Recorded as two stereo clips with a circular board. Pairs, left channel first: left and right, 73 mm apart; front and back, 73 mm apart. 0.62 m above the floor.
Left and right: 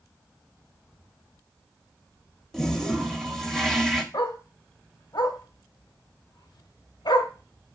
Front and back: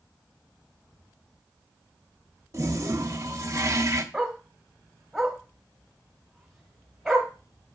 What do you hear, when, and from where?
2.5 s a toilet flushing: 175° left, 1.0 m
4.1 s a dog barking: 95° left, 1.4 m